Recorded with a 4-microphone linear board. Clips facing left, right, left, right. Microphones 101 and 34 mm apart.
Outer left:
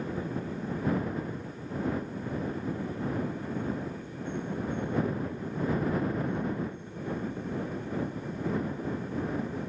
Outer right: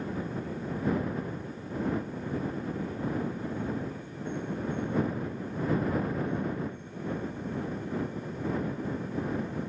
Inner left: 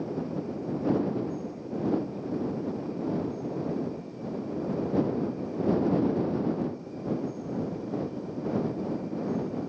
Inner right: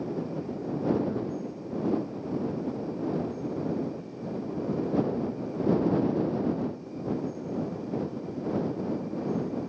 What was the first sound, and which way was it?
Only background noise.